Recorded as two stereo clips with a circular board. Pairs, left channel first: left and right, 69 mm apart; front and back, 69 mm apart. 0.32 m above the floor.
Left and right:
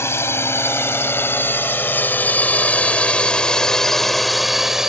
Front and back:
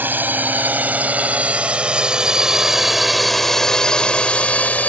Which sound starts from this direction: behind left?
A drone, at 0.0 s.